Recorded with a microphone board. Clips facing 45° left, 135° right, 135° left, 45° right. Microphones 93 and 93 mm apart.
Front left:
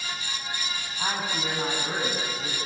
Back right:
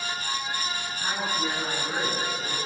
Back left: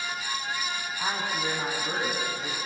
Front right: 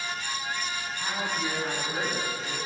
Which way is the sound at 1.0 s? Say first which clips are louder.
Even, back left 1 dB; 75° left.